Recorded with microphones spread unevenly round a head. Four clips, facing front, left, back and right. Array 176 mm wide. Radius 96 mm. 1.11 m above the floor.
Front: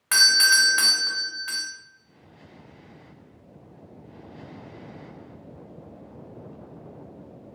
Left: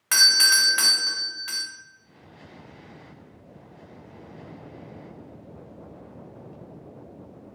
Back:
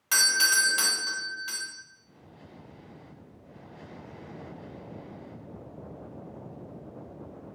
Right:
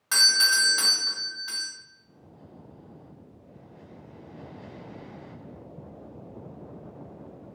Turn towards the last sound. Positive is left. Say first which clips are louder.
# left 2 dB, front 5 dB
turn(degrees=60)